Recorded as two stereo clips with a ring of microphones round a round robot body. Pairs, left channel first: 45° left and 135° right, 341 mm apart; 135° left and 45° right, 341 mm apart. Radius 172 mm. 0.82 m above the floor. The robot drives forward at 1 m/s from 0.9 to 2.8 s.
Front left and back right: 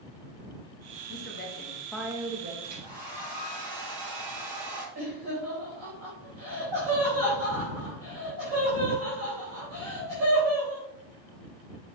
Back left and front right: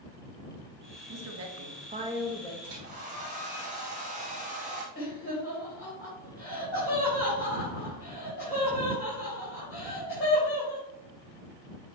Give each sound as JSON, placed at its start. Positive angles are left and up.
{"t": 1.1, "sound": "a woman speaking", "azimuth_deg": -10, "distance_m": 1.2}
{"t": 2.6, "sound": "a hair dryer", "azimuth_deg": -115, "distance_m": 2.5}
{"t": 5.0, "sound": "laughter", "azimuth_deg": -170, "distance_m": 3.5}